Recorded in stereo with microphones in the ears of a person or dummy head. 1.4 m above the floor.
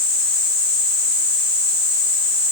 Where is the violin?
I don't hear a violin.